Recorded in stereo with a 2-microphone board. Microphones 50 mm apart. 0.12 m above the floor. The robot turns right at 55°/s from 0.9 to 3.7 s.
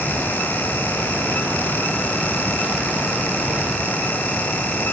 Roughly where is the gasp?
No gasp in this recording.